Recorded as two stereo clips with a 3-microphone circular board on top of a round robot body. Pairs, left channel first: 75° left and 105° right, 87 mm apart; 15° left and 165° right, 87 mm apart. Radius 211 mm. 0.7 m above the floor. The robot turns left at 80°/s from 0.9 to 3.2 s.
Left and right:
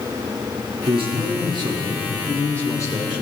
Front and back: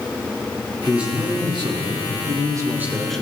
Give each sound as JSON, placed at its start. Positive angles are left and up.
{"t": 0.9, "sound": "a man speaking", "azimuth_deg": -80, "distance_m": 3.0}